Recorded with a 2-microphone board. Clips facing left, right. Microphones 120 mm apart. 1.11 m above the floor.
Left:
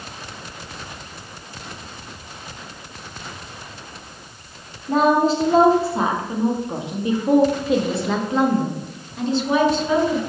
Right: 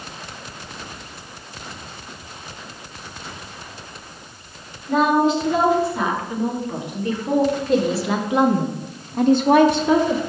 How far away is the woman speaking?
About 2.5 m.